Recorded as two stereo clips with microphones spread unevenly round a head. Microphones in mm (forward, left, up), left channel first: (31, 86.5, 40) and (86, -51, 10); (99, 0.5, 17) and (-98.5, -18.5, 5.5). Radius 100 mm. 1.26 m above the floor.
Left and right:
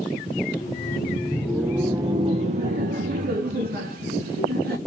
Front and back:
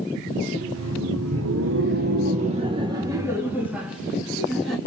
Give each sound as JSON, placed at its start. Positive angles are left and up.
{"t": 0.4, "sound": "laughter", "azimuth_deg": 160, "distance_m": 1.0}